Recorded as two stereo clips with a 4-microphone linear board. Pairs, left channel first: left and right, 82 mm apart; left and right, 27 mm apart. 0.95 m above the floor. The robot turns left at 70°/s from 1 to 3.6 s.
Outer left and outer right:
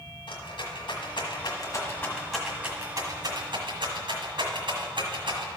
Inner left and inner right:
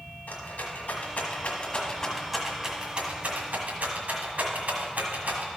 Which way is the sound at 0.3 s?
70° left (ahead or behind).